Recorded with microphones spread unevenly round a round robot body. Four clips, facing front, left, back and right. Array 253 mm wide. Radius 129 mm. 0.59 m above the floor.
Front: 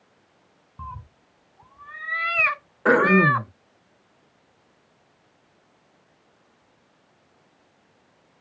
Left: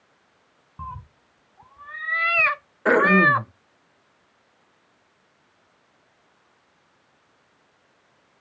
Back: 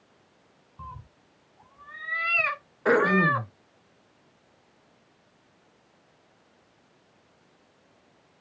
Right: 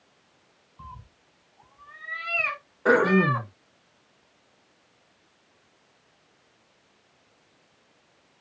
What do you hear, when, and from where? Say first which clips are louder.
0.8 s a cat meowing: left 8 dB, front 5 dB; 70° left, 1.0 m
2.9 s throat clearing: left 3 dB, front 4 dB; 5° left, 1.3 m